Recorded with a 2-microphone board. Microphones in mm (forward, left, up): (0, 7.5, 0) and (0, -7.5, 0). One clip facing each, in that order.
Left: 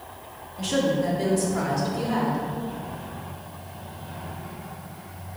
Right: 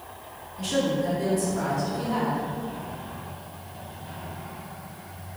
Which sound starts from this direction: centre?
A woman speaking, at 0.6 s.